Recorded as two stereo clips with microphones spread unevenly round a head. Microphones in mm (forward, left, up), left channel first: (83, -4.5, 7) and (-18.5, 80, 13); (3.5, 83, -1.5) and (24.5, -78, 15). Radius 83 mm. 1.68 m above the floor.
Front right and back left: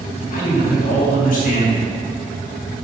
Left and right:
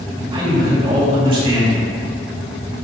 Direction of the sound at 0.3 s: 25° right.